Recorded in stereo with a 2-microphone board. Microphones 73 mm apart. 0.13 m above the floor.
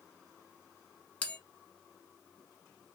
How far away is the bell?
About 1.0 m.